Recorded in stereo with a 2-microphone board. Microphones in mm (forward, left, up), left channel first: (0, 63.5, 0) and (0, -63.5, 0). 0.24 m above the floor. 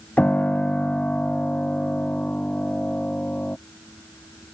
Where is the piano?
10° left (ahead or behind).